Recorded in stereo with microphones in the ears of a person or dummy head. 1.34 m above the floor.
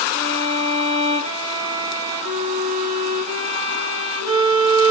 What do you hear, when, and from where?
0.1 s a violin: 25° right (ahead or behind), 0.7 m